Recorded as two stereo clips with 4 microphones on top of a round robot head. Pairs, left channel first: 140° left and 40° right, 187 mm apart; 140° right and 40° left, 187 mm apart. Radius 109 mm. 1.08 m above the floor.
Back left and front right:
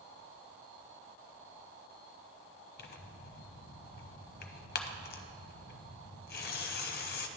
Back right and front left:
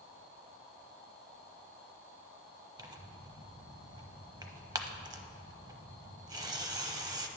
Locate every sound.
2.8 s tearing paper: 110° left, 0.7 m